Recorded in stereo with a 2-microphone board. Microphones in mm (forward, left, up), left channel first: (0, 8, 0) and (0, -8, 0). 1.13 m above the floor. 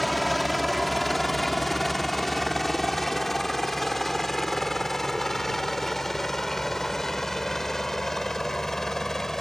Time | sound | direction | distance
0.0 | a helicopter | centre (ahead or behind) | ?